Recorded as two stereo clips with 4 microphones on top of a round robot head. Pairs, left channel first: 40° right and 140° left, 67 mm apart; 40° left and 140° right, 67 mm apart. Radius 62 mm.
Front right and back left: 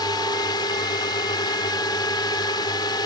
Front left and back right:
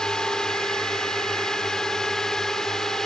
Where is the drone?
40° right.